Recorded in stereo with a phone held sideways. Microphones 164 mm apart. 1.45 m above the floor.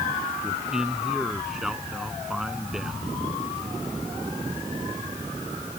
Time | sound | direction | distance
0.4 | a man speaking | 5° right (ahead or behind) | ?